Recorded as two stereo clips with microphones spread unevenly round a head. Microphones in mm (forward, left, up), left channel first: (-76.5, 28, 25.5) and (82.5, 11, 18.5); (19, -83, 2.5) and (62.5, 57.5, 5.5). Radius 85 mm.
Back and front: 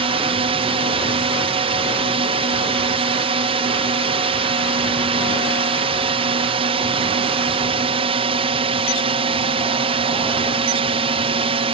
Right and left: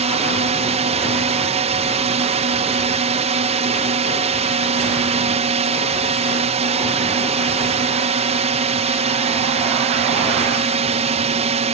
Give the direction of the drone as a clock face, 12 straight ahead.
11 o'clock.